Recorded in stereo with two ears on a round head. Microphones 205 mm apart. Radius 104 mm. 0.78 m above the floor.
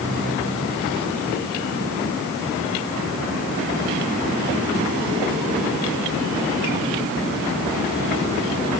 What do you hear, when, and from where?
Only background noise.